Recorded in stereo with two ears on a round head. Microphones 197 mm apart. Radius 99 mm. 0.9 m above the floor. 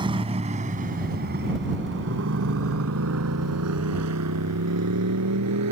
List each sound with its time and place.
0.0 s a motorcycle: 20° right (ahead or behind); by 5.7 s 85° right